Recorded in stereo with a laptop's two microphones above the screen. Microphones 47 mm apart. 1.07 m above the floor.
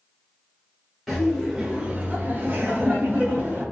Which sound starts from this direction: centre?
Laughter, at 1.1 s.